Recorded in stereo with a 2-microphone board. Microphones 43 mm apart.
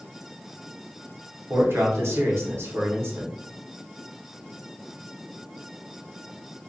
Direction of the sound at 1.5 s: 70° right (ahead or behind).